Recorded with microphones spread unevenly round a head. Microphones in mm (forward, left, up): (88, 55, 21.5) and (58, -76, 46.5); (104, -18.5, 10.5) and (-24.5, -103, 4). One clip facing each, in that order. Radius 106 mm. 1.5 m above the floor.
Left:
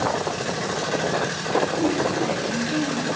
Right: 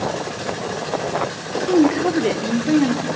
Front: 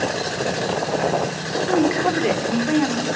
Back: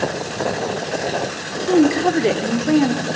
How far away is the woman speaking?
About 4 m.